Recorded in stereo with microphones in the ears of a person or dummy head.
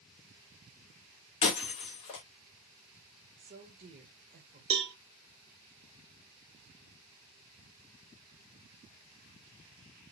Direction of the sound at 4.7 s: 30° right (ahead or behind).